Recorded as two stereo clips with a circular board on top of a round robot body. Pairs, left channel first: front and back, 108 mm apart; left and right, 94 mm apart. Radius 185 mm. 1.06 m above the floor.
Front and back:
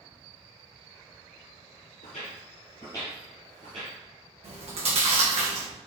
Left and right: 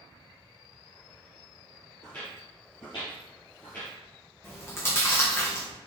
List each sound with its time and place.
2.0 s footsteps: 15° left, 1.4 m; by 4.0 s 160° left, 1.2 m
4.4 s chewing: 155° left, 2 m